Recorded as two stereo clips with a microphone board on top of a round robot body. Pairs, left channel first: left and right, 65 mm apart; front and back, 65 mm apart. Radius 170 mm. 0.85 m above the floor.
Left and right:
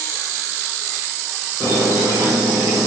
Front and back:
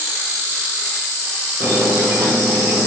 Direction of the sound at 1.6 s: 140° right.